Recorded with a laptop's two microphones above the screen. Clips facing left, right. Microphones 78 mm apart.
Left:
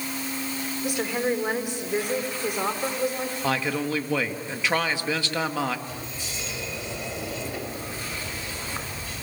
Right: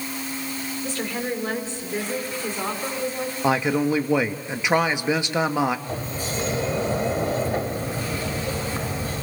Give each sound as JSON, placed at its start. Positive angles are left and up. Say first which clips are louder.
{"t": 0.8, "sound": "a woman speaking", "louder": "left 3 dB", "side_deg": 15, "distance_m": 3.5}
{"t": 3.4, "sound": "a man speaking", "louder": "right 6 dB", "side_deg": -20, "distance_m": 1.5}
{"t": 5.9, "sound": "a sliding door", "louder": "right 7 dB", "side_deg": -45, "distance_m": 1.7}